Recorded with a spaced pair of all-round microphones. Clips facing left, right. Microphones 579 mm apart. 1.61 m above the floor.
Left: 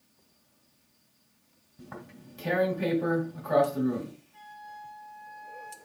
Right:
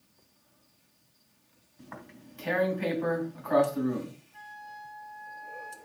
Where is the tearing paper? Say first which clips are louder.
Left 2 dB; 60° left (ahead or behind), 3 m.